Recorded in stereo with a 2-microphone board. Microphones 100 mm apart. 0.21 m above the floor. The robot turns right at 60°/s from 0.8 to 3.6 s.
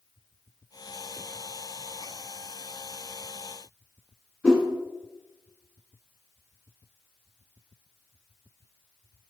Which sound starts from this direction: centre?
A whoosh, at 4.4 s.